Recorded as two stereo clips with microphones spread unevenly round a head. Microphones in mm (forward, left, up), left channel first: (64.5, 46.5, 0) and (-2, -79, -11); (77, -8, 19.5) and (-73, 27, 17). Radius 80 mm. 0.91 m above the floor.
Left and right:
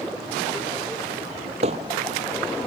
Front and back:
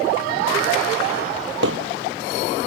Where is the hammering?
175° right.